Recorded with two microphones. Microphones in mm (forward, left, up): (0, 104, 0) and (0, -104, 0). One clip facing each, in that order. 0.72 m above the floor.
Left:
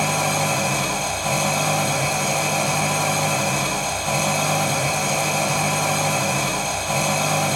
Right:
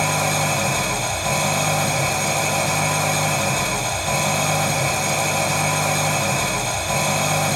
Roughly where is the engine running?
Centre.